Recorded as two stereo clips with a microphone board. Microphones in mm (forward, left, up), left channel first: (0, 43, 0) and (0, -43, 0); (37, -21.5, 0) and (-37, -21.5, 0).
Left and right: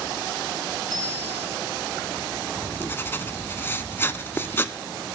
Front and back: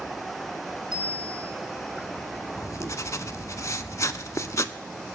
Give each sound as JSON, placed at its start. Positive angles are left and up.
{"t": 0.9, "sound": "a bicycle bell", "azimuth_deg": 175, "distance_m": 5.5}
{"t": 2.6, "sound": "writing", "azimuth_deg": 35, "distance_m": 0.5}